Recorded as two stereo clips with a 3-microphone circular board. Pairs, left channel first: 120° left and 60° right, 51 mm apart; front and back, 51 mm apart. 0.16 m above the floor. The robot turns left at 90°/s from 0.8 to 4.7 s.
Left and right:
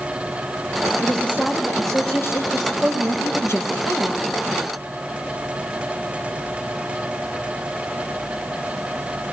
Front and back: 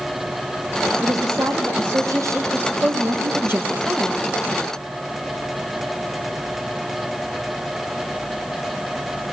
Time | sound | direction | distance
1.0 | a woman speaking | 85° right | 6 m
2.8 | a woman speaking | 155° right | 4 m